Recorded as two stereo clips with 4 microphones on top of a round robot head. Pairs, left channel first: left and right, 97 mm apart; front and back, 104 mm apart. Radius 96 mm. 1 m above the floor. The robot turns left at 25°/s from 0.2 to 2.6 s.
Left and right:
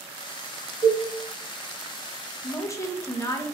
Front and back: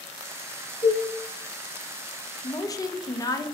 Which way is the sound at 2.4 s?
45° left.